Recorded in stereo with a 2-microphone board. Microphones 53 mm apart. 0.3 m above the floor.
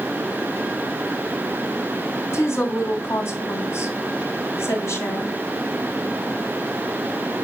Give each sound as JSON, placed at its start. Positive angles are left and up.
{"t": 2.3, "sound": "a woman speaking", "side_deg": 60, "distance_m": 2.5}